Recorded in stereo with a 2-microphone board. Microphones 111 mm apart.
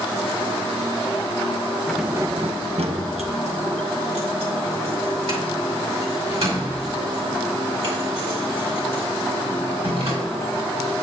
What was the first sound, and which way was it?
Keys jangling, 5° left (ahead or behind).